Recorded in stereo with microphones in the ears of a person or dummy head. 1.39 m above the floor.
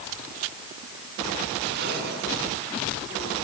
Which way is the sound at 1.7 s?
60° right (ahead or behind).